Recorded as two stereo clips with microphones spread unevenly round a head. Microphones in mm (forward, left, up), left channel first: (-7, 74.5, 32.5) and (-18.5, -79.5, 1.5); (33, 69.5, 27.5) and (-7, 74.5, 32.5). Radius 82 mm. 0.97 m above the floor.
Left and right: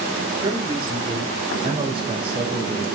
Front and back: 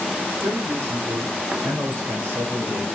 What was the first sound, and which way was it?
A man speaking, 150° right.